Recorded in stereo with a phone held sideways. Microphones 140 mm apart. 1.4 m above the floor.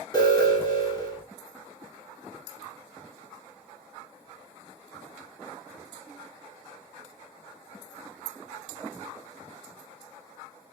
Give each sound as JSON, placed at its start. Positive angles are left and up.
{"t": 0.1, "sound": "an alarm", "side_deg": 25, "distance_m": 1.7}